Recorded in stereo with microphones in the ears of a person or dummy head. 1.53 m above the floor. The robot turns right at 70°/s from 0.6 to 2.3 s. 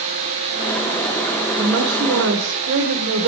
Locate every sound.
1.6 s a woman speaking: 150° right, 1.5 m; by 3.3 s 100° right, 1.5 m